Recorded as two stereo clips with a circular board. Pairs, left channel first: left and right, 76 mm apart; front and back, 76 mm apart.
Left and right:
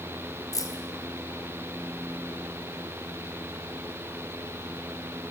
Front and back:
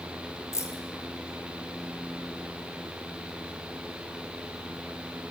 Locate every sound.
0.5 s keys jangling: 50° left, 3 m